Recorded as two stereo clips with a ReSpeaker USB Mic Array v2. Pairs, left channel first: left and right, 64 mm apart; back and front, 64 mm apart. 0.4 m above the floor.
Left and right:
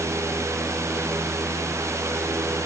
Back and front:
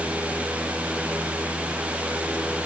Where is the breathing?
I don't hear breathing.